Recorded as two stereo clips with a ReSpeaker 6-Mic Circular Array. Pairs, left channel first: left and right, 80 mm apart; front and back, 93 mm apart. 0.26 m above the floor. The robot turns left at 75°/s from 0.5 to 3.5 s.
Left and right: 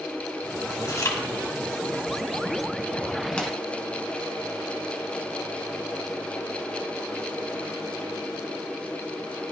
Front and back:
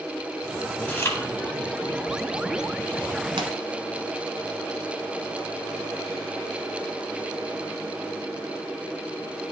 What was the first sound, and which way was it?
Chewing, 70° left.